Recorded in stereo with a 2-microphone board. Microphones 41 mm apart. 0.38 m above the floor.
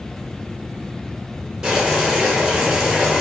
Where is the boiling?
20° right (ahead or behind), 0.8 m.